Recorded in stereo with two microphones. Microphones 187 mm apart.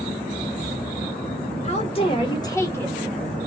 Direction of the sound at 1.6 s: 35° left (ahead or behind).